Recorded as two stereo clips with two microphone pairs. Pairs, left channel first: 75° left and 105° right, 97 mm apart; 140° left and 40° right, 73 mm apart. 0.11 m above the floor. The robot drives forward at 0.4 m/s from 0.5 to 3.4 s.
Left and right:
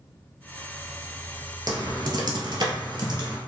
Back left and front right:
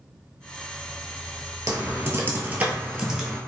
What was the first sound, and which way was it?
Typing on a keyboard, 70° right.